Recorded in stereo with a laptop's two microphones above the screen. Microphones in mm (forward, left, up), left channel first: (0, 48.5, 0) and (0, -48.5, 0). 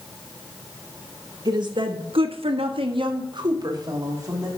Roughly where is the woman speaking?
Right.